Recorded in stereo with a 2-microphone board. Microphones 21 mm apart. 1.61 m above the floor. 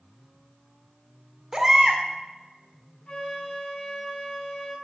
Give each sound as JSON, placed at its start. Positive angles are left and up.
{"t": 1.5, "sound": "a baby crying", "side_deg": -25, "distance_m": 2.0}
{"t": 3.1, "sound": "a flute", "side_deg": 55, "distance_m": 4.5}